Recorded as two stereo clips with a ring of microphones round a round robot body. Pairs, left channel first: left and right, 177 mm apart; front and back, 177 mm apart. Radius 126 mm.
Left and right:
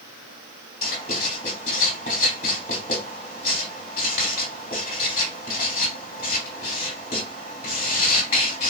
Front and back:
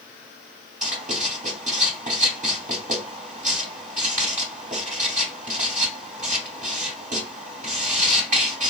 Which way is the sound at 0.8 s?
145° left.